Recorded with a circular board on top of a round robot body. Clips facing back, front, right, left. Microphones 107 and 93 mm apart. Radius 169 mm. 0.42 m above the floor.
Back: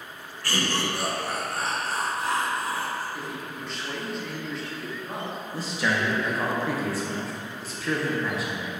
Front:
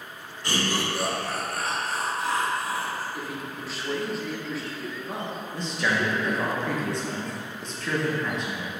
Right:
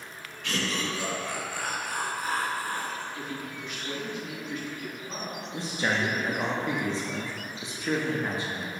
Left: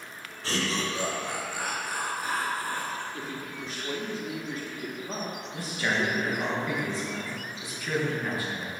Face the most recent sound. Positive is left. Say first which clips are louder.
# even, right 1 dB
turn(degrees=-100)